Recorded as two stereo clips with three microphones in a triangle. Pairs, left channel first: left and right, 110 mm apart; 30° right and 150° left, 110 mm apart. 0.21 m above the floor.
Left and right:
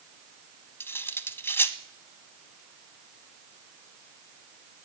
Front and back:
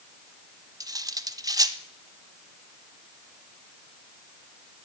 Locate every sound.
0.8 s cutlery clinking: 145° left, 0.8 m